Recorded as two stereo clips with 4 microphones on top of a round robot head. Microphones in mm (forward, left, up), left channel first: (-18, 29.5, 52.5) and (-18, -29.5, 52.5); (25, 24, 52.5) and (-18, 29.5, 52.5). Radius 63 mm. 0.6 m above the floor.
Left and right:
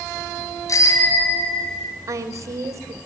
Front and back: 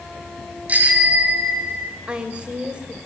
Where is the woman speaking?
115° right, 3.5 m.